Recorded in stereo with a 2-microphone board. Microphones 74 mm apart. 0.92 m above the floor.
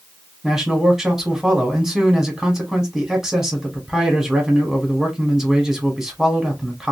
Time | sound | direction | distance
0.4 | a man speaking | 5° right (ahead or behind) | 1.6 m